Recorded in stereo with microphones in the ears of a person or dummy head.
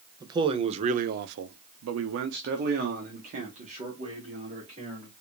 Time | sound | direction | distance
0.2 | a man speaking | 20° right (ahead or behind) | 0.8 m